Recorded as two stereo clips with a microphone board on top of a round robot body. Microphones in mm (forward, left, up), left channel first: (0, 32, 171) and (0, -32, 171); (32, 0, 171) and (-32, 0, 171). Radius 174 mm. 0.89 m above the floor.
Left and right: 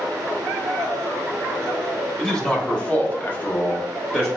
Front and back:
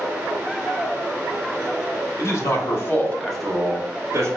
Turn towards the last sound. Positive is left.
turn(degrees=160)